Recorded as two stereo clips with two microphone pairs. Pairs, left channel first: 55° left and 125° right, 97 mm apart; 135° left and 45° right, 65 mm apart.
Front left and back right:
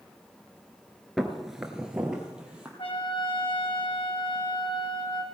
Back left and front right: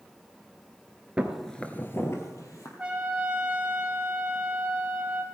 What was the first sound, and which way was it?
Footsteps, 30° right.